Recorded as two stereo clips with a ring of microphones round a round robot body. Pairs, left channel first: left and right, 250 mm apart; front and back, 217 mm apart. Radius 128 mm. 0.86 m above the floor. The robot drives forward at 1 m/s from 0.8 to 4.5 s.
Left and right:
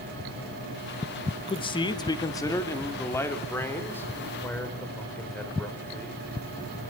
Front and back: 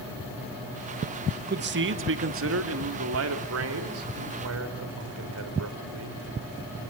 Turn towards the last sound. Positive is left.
turn(degrees=175)